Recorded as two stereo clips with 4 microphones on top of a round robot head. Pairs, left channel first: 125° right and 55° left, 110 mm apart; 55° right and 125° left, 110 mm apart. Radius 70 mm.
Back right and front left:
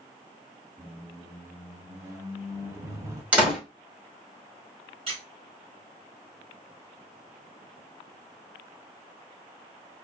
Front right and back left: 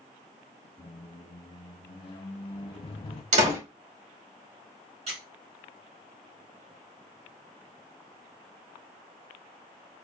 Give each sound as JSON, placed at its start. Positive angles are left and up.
{"t": 0.8, "sound": "a squeak", "azimuth_deg": -10, "distance_m": 0.6}
{"t": 3.3, "sound": "a door slam", "azimuth_deg": 135, "distance_m": 1.9}
{"t": 5.1, "sound": "a squeak", "azimuth_deg": 95, "distance_m": 1.8}